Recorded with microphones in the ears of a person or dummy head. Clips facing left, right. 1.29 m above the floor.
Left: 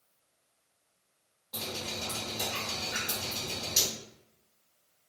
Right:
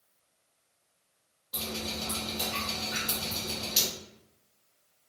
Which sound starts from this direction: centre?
Dripping, at 1.5 s.